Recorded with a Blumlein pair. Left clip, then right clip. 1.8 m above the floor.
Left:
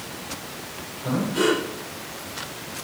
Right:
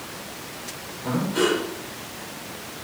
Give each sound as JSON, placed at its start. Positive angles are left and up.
{"t": 1.0, "sound": "breathing", "azimuth_deg": -10, "distance_m": 8.5}